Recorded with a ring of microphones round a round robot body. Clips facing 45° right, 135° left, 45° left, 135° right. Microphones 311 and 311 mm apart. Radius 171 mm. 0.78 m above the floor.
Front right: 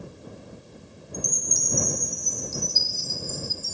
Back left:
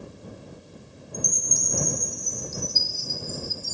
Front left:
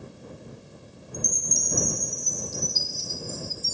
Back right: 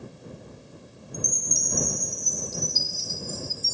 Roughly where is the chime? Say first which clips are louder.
Even, even; right.